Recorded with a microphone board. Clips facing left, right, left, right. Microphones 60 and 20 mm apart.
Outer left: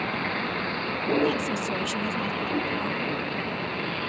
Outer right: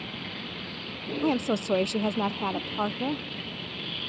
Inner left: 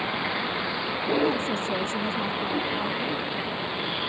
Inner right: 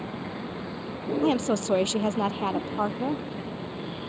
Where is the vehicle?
55° left (ahead or behind); by 4.1 s 50° left (ahead or behind).